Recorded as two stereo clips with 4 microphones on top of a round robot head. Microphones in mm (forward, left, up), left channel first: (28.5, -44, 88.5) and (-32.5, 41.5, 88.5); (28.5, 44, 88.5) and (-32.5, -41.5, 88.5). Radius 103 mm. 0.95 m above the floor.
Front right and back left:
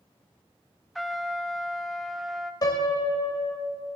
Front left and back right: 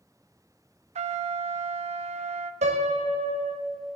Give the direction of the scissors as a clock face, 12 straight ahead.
No scissors in this recording.